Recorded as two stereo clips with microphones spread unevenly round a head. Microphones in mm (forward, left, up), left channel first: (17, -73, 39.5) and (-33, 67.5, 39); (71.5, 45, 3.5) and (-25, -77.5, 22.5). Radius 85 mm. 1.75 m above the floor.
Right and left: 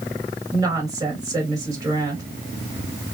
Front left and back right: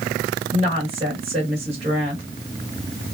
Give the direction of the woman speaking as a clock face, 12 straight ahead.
6 o'clock.